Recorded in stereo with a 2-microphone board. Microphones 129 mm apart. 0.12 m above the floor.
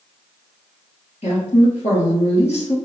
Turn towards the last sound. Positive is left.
turn(degrees=55)  # may be behind; listen again after turning